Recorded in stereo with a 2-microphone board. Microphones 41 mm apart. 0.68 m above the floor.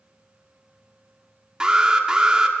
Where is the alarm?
20° right (ahead or behind), 2 m.